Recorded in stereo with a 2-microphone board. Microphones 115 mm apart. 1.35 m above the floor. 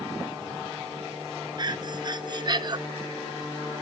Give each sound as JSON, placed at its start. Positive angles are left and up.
{"t": 1.6, "sound": "breathing", "side_deg": -40, "distance_m": 0.6}